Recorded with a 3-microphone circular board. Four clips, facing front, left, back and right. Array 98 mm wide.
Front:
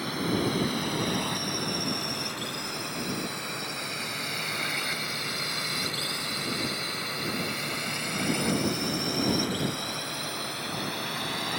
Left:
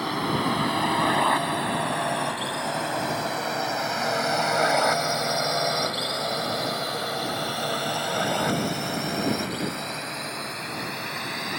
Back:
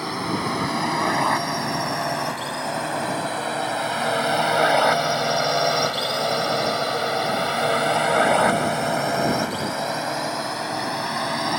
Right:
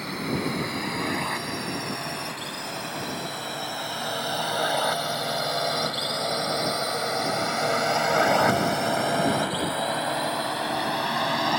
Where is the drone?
135° left; by 11.6 s 130° right.